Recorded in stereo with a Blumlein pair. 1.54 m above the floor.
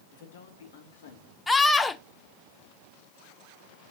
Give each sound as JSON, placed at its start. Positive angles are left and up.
{"t": 0.1, "sound": "a man speaking", "azimuth_deg": 55, "distance_m": 2.5}
{"t": 1.5, "sound": "a scream", "azimuth_deg": 10, "distance_m": 0.6}